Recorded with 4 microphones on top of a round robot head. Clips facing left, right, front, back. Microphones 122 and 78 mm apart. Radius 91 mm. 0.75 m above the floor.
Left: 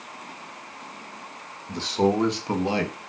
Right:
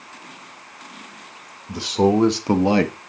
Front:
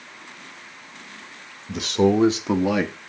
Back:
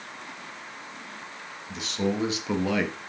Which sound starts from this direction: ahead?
A man speaking, at 1.7 s.